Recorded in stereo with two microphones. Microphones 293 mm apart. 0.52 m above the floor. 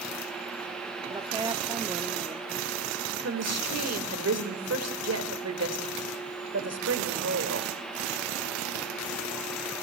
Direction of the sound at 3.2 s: 60° right (ahead or behind).